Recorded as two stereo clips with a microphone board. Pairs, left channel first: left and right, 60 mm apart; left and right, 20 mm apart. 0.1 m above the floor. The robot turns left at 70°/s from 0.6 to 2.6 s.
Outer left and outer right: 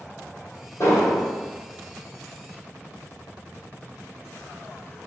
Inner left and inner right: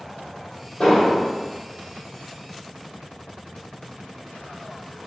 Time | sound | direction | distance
0.8 | an explosion | 130° left | 1.5 m